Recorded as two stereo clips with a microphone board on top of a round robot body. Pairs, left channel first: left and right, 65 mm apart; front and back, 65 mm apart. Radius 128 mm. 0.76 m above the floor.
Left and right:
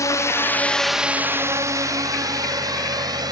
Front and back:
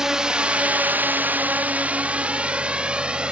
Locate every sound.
0.0 s a drone: 100° left; by 3.3 s 105° right